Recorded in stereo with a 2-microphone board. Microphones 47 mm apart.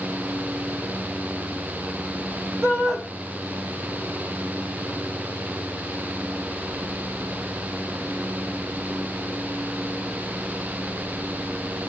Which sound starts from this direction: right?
A shout, at 2.6 s.